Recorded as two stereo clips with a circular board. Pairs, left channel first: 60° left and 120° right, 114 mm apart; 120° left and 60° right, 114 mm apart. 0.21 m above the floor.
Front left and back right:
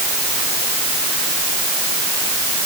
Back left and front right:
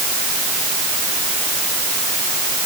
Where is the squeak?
I don't hear a squeak.